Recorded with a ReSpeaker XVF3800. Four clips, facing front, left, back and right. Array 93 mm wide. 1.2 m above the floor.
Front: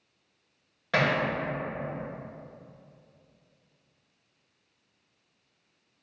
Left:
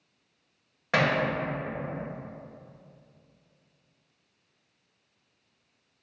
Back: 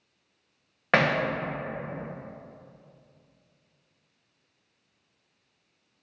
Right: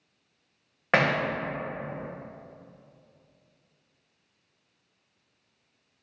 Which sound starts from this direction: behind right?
Hammering, at 0.9 s.